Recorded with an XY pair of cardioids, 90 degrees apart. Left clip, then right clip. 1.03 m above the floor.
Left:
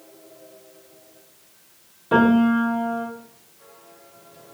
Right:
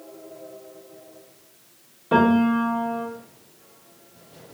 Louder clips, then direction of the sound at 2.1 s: Left 1 dB; 5° right.